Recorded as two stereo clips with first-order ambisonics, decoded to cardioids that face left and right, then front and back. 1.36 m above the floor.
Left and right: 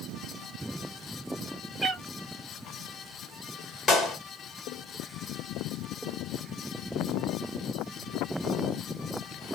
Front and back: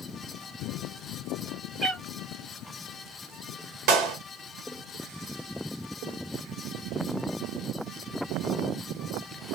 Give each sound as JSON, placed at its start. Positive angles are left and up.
{"t": 1.8, "sound": "a cat meowing", "azimuth_deg": -160, "distance_m": 1.1}
{"t": 3.9, "sound": "a clap", "azimuth_deg": 155, "distance_m": 1.3}